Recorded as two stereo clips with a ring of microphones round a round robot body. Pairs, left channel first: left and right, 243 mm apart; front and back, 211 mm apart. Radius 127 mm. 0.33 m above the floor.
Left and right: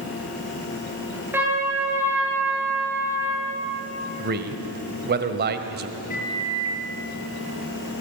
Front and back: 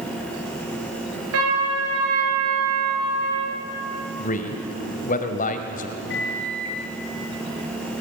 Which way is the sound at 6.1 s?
30° left.